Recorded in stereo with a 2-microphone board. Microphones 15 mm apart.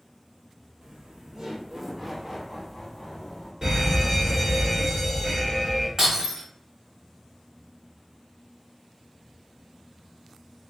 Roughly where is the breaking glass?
Right.